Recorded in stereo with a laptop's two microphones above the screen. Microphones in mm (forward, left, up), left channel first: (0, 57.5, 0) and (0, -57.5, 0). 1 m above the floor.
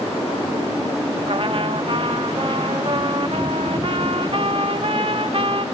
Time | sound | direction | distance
1.3 | a trumpet | 50° right (ahead or behind) | 1.5 m